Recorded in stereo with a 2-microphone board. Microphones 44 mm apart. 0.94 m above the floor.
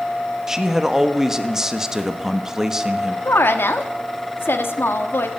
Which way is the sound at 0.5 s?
15° right (ahead or behind).